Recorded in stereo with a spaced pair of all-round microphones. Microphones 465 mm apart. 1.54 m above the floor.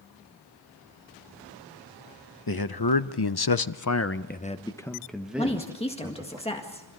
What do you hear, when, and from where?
2.5 s a man speaking: 50° left (ahead or behind), 1.1 m; by 6.4 s 10° right (ahead or behind), 2 m
5.4 s a woman speaking: 15° left (ahead or behind), 1.7 m